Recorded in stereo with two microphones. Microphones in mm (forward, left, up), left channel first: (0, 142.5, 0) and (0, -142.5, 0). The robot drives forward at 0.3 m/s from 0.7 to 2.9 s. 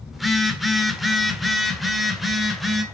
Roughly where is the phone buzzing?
Centre.